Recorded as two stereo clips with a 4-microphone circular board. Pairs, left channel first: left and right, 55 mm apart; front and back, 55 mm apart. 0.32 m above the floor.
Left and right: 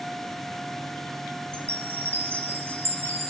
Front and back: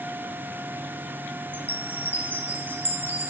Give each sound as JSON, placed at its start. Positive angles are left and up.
{"t": 1.5, "sound": "a chime", "azimuth_deg": -130, "distance_m": 1.6}